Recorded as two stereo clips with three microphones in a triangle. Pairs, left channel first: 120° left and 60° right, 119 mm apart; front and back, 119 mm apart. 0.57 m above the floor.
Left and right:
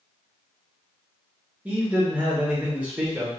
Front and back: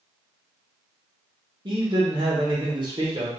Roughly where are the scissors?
No scissors in this recording.